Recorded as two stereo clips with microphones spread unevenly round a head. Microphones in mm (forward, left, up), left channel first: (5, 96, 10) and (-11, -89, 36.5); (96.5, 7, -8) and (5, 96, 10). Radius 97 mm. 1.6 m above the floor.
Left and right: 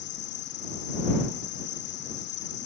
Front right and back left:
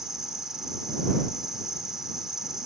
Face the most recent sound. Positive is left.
turn(degrees=50)